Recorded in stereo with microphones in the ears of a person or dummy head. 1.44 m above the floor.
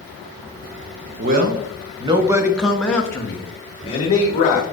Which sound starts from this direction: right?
A man speaking, at 1.2 s.